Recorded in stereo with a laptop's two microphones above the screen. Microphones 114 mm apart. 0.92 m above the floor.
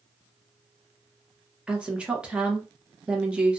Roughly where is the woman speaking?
Centre.